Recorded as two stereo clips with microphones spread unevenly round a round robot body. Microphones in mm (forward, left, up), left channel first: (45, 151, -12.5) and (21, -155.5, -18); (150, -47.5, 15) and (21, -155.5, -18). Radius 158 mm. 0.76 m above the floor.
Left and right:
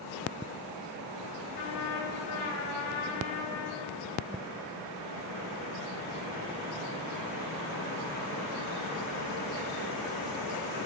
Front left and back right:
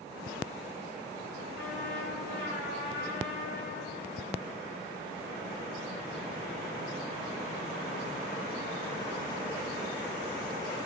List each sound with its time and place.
1.6 s a trumpet: 70° left, 3.5 m